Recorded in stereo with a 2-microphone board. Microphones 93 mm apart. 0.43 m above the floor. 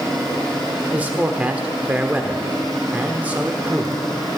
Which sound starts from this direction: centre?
A man speaking, at 0.9 s.